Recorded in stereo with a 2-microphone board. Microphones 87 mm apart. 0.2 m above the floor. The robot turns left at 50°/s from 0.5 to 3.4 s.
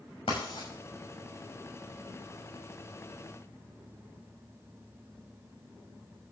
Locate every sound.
0.3 s writing: 85° left, 6 m; by 0.7 s 75° left (ahead or behind), 6 m